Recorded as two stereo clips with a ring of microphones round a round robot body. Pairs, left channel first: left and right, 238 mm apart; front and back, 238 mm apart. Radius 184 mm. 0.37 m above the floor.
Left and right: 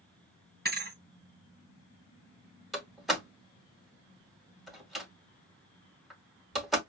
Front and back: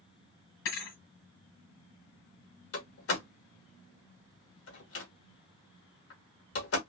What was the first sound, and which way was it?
A thud, 40° right.